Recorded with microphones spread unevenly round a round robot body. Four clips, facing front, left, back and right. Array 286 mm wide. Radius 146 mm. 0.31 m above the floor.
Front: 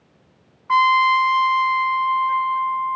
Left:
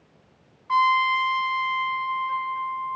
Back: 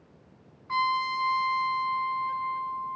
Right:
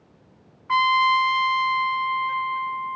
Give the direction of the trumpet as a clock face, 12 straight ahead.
1 o'clock.